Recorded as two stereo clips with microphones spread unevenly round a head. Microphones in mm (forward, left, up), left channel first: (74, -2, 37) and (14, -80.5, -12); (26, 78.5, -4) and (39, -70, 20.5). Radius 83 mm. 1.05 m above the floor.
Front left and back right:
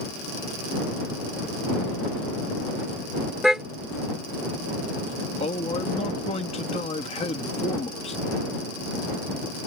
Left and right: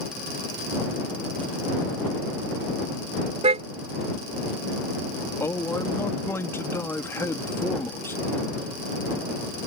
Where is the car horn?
40° right.